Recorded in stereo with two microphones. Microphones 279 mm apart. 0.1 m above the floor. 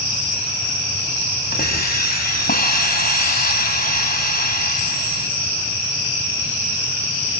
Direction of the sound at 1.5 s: 35° left (ahead or behind).